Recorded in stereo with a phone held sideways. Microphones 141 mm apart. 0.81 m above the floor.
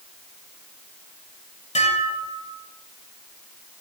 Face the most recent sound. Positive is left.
turn(degrees=55)  # may be behind; listen again after turning